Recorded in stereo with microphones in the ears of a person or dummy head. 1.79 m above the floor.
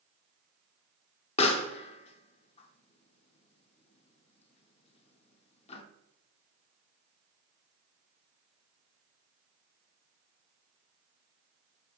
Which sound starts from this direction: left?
A pop, at 1.4 s.